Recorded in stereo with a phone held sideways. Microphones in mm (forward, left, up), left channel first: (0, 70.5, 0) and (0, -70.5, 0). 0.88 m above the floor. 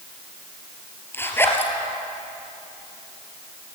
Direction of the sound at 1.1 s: 15° left (ahead or behind).